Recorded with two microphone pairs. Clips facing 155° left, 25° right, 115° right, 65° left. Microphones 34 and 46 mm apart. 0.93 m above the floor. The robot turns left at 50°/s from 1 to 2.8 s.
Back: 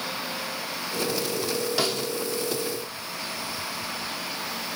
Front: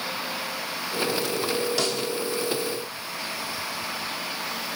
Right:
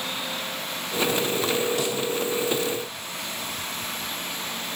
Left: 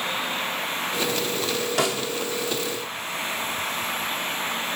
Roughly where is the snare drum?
Left.